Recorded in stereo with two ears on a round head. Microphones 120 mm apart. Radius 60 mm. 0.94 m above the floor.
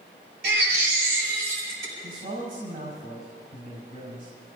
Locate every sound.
0.4 s a baby crying: 85° right, 5 m
2.0 s a man speaking: 60° right (ahead or behind), 5.5 m